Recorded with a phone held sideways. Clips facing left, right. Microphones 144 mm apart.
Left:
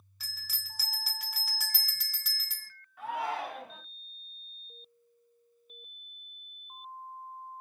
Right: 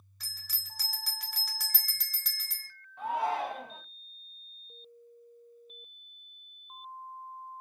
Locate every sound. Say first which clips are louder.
0.2 s a bell: left 3 dB; 5° left (ahead or behind), 0.7 m
3.0 s a shout: right 3 dB; 25° right (ahead or behind), 1.9 m